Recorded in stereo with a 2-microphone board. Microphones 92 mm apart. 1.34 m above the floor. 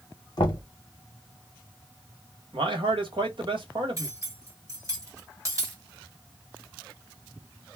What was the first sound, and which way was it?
Knocking, 55° left (ahead or behind).